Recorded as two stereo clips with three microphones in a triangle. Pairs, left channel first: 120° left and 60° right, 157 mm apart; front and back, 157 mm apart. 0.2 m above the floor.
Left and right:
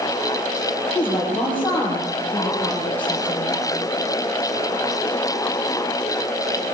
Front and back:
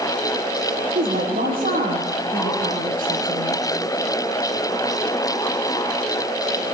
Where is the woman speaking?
160° right, 6.5 m.